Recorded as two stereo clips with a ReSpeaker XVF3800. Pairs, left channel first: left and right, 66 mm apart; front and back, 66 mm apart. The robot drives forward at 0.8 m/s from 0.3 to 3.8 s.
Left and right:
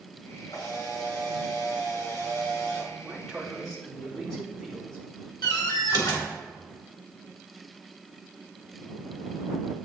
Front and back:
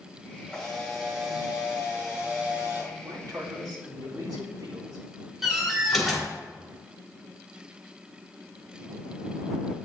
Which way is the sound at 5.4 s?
90° left.